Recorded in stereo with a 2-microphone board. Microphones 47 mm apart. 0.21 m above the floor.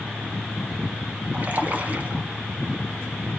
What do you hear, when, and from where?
1.3 s a splash: 35° right (ahead or behind), 1.7 m